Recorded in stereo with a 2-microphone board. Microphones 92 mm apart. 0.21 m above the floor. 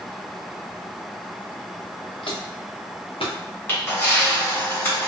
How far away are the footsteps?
About 1.2 m.